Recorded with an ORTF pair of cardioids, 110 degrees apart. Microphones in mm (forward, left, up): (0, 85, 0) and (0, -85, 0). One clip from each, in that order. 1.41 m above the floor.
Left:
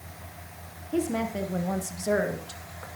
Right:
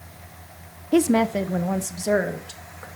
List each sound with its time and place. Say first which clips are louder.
0.9 s a woman speaking: right 9 dB; 60° right, 0.7 m; by 2.9 s 15° right, 2.5 m